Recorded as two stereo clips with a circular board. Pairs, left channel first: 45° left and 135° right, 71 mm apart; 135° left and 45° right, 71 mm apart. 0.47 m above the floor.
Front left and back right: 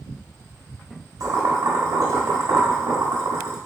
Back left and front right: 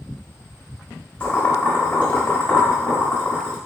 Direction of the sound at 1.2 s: 155° right.